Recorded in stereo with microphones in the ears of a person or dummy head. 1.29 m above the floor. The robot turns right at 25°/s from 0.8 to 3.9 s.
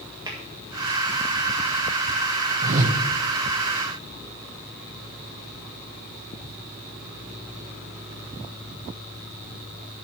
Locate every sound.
0.3 s tapping: 20° right (ahead or behind), 1.7 m
2.6 s a whoosh: 45° right (ahead or behind), 0.6 m; by 3.0 s 35° right (ahead or behind), 0.6 m